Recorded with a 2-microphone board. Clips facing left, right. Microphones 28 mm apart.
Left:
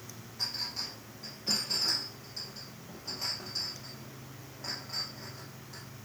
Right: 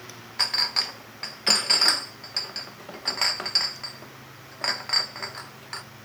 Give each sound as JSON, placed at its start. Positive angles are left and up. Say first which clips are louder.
{"t": 0.4, "sound": "a clink", "louder": "right 11 dB", "side_deg": -90, "distance_m": 0.6}